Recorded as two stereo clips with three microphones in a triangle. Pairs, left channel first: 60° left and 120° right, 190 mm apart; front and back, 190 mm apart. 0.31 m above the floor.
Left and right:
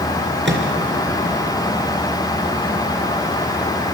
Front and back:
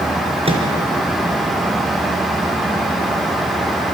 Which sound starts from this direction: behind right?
A microwave, at 0.5 s.